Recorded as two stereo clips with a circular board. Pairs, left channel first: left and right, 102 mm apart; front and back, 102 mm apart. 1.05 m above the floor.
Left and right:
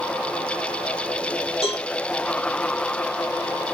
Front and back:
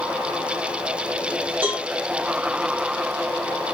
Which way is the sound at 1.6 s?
105° left.